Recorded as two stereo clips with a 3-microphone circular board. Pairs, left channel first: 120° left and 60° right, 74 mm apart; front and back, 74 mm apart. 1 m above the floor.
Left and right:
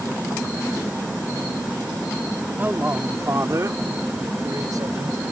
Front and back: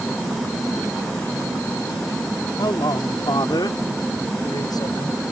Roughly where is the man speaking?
Ahead.